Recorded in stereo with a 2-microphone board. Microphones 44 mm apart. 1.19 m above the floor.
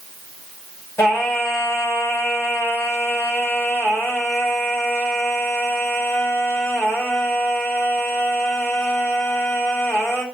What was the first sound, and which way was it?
Singing, 90° left.